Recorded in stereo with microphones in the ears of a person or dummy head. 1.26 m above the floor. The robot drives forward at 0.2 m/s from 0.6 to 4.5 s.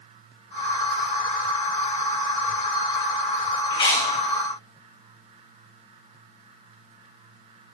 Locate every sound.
3.7 s chewing: 25° left (ahead or behind), 1.5 m